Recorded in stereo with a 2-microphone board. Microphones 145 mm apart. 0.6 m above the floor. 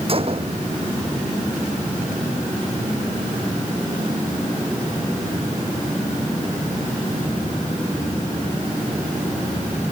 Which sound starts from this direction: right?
A gunshot, at 0.1 s.